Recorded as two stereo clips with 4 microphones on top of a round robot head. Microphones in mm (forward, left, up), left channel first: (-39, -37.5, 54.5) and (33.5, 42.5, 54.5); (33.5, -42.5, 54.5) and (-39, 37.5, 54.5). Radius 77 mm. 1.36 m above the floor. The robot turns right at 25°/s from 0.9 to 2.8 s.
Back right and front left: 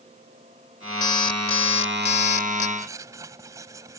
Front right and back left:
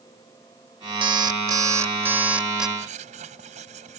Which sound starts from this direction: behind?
An alarm clock, at 1.0 s.